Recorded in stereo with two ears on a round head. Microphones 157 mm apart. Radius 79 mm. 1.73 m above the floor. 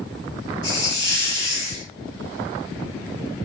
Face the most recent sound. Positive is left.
turn(degrees=20)  # may be behind; listen again after turning